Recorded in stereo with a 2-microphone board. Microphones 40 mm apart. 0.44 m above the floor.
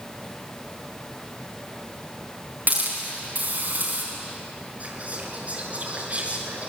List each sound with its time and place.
2.7 s a hiss: 50° right (ahead or behind), 5 m
4.8 s whispering: 35° right (ahead or behind), 6 m